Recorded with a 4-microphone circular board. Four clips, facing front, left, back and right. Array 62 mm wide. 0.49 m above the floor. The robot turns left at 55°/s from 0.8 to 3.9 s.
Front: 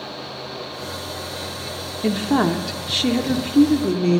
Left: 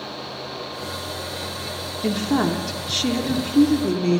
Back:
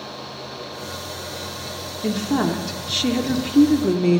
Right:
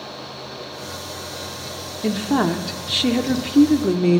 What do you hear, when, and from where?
2.0 s a woman speaking: 10° right, 0.8 m; by 4.2 s 115° right, 0.8 m